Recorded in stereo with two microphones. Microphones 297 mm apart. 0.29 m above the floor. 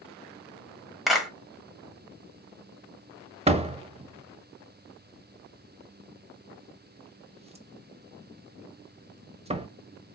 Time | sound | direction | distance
1.1 | a clap | centre (ahead or behind) | 1.1 m
3.5 | a door slam | 20° right (ahead or behind) | 0.6 m